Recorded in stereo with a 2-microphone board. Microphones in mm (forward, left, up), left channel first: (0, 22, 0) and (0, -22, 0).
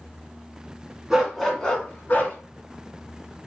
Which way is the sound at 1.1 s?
10° right (ahead or behind).